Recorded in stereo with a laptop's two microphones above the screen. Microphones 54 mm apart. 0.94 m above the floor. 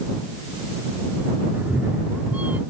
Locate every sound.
1.5 s a cat meowing: 35° right (ahead or behind); by 2.6 s 25° right (ahead or behind)